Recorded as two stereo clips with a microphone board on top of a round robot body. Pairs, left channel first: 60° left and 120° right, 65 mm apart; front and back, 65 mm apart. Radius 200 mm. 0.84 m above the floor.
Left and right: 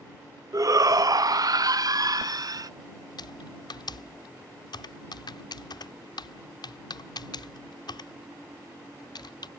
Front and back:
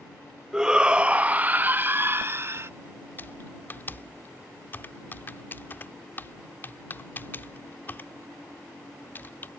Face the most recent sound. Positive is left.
turn(degrees=65)